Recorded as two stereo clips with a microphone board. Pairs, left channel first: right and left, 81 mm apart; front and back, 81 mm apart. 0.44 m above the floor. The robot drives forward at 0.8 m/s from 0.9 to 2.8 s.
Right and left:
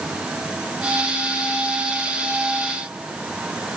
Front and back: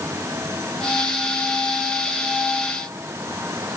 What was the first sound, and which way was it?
Only background noise.